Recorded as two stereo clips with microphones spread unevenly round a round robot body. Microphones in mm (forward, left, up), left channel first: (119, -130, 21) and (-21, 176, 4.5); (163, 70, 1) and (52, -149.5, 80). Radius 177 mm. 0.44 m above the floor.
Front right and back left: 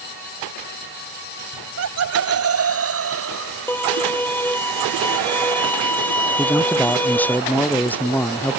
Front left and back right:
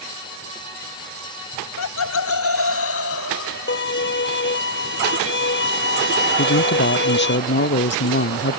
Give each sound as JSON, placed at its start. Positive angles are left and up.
{"t": 1.5, "sound": "laughter", "azimuth_deg": 80}
{"t": 3.7, "sound": "a violin", "azimuth_deg": 20}
{"t": 6.4, "sound": "a man speaking", "azimuth_deg": 20}